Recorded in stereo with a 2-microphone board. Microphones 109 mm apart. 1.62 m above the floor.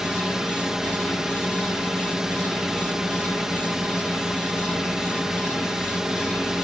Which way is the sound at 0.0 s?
5° right (ahead or behind).